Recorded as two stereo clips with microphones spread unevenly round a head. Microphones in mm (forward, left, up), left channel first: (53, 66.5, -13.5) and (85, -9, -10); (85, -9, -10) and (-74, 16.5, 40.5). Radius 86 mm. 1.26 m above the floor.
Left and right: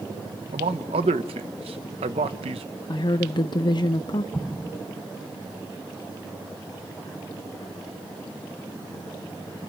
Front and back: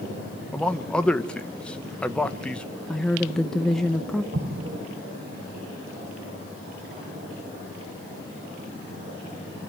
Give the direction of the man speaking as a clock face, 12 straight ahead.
3 o'clock.